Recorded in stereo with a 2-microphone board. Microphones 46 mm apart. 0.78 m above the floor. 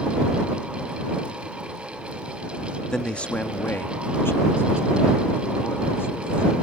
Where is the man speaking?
15° left (ahead or behind); by 6.5 s 65° left (ahead or behind).